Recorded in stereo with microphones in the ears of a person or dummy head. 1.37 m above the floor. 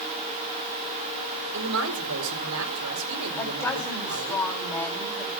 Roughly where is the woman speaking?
Centre.